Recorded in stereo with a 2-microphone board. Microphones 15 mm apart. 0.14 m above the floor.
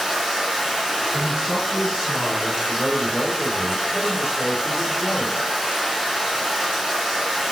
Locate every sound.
0.0 s running water: 80° right, 4 m
1.1 s a man speaking: 60° right (ahead or behind), 3.5 m
2.7 s a man speaking: 45° right (ahead or behind), 2.5 m